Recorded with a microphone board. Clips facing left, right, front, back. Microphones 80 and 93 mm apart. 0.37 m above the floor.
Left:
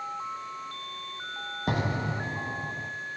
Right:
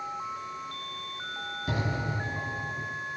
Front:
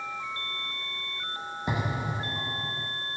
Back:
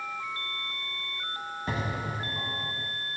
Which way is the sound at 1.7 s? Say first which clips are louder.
Left 3 dB, front 2 dB; 70° left.